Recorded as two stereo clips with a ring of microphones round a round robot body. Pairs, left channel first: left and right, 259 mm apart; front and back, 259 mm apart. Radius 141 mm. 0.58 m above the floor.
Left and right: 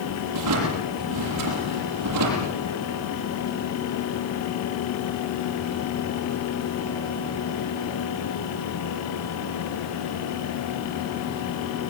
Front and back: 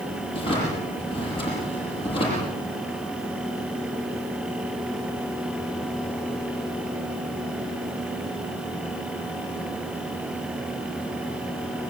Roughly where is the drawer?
Right.